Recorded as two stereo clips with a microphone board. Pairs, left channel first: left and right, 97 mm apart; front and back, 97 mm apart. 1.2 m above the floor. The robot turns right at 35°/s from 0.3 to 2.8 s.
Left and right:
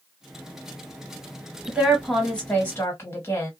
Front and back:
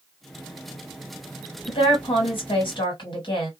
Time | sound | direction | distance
1.7 | a woman speaking | 15° right | 1.6 m